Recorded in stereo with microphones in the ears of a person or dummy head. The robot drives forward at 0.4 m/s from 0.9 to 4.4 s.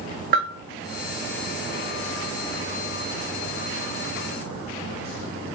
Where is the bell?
50° right (ahead or behind), 0.8 m.